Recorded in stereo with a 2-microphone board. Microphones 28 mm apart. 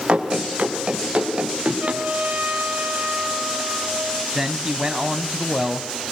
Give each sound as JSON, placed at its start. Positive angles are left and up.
{"t": 0.1, "sound": "running footsteps", "side_deg": -45, "distance_m": 6.0}
{"t": 1.8, "sound": "a trumpet", "side_deg": -75, "distance_m": 4.5}
{"t": 4.3, "sound": "a man speaking", "side_deg": -25, "distance_m": 1.1}